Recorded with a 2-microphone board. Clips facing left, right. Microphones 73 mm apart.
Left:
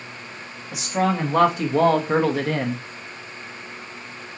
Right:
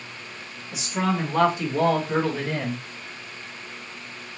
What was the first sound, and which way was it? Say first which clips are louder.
A man speaking: left 3 dB; 65° left (ahead or behind).